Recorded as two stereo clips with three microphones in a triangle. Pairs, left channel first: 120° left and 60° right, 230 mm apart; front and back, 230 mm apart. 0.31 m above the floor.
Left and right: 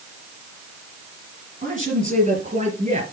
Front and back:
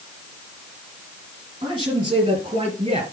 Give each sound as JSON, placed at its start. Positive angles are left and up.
{"t": 1.6, "sound": "a man speaking", "azimuth_deg": -110, "distance_m": 5.5}